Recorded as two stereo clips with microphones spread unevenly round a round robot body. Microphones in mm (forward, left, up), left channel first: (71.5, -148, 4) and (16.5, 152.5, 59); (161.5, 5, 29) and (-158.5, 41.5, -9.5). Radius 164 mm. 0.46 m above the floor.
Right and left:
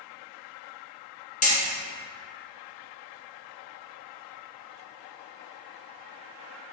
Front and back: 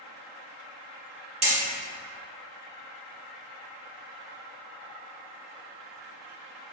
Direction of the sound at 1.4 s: 130° right.